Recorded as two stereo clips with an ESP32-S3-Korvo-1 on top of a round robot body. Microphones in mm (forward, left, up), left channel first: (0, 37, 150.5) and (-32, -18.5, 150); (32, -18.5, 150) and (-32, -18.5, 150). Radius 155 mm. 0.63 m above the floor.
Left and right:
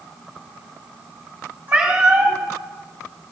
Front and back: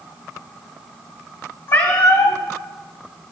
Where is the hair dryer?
No hair dryer in this recording.